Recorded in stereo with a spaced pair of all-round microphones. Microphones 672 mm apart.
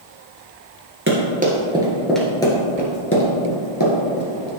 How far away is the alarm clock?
No alarm clock in this recording.